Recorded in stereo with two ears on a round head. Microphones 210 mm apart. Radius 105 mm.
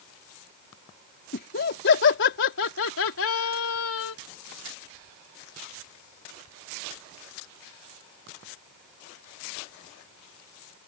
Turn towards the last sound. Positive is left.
turn(degrees=70)  # may be behind; listen again after turning